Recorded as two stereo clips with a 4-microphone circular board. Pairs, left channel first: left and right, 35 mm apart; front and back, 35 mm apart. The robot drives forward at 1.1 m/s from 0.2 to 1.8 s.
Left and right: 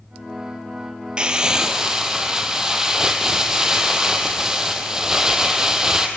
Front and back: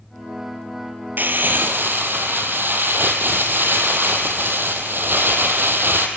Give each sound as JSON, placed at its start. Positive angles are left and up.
{"t": 1.2, "sound": "crumpling", "azimuth_deg": -150, "distance_m": 1.2}